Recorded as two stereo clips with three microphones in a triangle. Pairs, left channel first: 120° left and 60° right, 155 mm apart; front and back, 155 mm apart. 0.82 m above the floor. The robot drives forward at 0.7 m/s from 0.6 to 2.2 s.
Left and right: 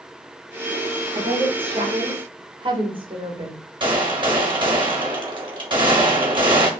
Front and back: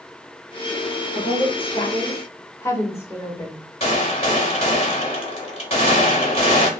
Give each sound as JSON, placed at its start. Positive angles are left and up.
{"t": 1.1, "sound": "a woman speaking", "azimuth_deg": -25, "distance_m": 1.4}
{"t": 3.8, "sound": "a gunshot", "azimuth_deg": -20, "distance_m": 1.2}